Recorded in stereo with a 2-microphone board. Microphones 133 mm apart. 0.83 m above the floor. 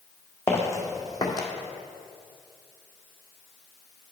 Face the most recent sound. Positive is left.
turn(degrees=30)  # may be behind; listen again after turning